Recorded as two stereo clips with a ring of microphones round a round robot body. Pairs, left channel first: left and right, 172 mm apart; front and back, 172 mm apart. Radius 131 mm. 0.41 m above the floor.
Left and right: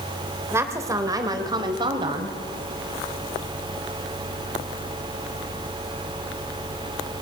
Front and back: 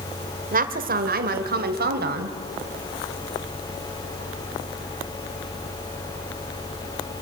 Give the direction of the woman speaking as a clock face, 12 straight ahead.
5 o'clock.